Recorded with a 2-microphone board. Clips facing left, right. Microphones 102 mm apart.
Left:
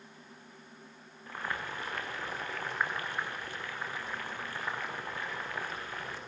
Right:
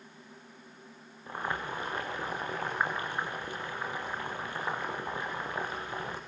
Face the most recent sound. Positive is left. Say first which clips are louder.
# right 3 dB
turn(degrees=-20)  # may be behind; listen again after turning